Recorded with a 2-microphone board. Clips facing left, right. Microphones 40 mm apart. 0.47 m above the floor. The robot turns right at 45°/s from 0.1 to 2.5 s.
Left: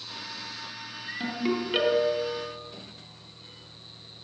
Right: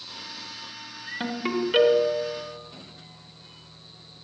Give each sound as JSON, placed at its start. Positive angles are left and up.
{"t": 1.2, "sound": "a ringtone", "azimuth_deg": -30, "distance_m": 3.0}